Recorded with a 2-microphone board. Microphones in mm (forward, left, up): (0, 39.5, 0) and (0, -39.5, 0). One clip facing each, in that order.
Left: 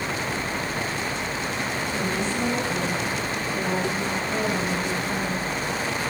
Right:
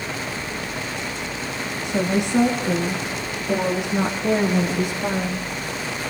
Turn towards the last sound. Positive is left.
turn(degrees=-60)  # may be behind; listen again after turning